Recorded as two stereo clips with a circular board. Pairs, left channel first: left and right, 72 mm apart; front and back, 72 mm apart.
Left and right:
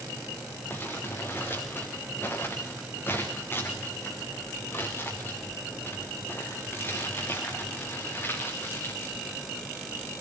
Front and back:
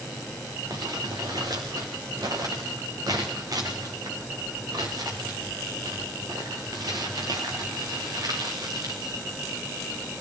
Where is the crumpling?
150° left, 3.5 m.